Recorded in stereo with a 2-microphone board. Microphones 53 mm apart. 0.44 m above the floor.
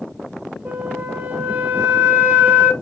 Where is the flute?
35° right (ahead or behind), 0.8 m.